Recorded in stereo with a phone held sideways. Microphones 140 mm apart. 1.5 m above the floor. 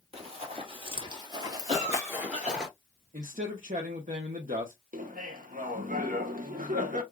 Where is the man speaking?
70° right (ahead or behind), 0.9 m.